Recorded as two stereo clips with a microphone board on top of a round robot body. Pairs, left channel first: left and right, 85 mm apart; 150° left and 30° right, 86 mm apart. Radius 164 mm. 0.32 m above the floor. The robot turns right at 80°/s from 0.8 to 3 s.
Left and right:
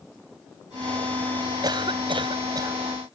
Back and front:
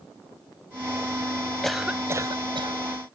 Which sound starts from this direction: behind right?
A cough, at 1.6 s.